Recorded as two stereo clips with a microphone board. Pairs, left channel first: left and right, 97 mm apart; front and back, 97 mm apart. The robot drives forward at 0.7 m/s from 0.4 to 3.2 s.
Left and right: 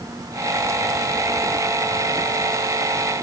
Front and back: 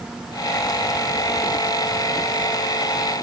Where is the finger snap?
No finger snap in this recording.